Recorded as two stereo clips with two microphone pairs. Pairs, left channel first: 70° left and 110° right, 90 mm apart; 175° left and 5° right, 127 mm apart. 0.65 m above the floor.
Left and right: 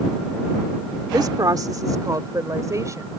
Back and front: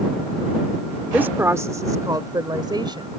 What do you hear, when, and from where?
1.1 s a woman speaking: 80° right; by 3.1 s 55° right